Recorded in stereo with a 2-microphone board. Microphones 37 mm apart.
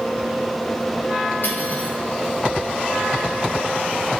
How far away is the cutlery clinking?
About 3.5 m.